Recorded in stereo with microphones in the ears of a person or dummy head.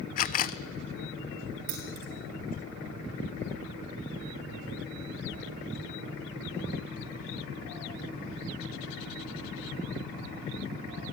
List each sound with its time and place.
0.2 s a camera shutter: 45° left (ahead or behind), 0.5 m
1.7 s keys jangling: 70° right (ahead or behind), 3.5 m